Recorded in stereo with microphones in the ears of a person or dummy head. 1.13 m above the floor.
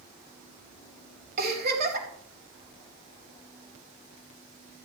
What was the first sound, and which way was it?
A giggle, 50° right (ahead or behind).